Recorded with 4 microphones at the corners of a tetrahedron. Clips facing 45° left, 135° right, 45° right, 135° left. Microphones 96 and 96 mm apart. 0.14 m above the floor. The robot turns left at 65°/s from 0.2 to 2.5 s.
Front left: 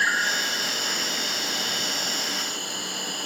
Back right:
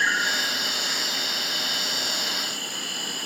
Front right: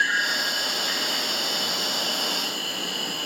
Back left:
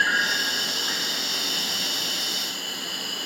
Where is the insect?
125° left, 2 m; by 3.3 s 20° right, 2 m.